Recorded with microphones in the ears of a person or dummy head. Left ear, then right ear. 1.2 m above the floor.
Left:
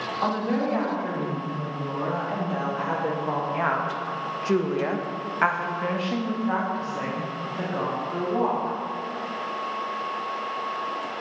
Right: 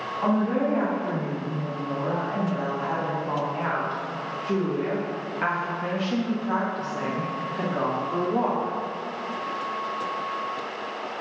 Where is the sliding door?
No sliding door in this recording.